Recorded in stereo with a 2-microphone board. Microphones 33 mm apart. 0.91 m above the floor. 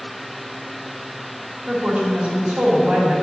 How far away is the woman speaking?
About 2.5 m.